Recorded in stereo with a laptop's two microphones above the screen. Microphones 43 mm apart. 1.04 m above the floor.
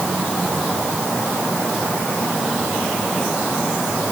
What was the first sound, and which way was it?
Only background noise.